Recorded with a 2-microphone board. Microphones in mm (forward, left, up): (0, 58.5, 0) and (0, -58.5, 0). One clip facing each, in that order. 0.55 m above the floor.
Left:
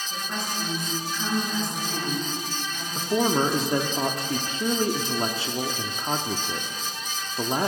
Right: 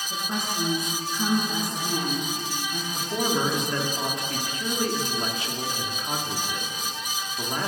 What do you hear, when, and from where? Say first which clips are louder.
0.1 s a woman speaking: right 2 dB; 25° right (ahead or behind), 7.5 m
3.0 s a man speaking: left 4 dB; 30° left (ahead or behind), 0.9 m